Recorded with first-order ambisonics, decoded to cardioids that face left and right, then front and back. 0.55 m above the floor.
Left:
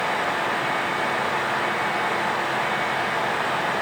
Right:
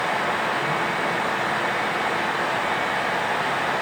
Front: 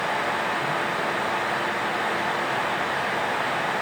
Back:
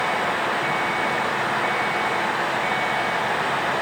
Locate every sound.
Only background noise.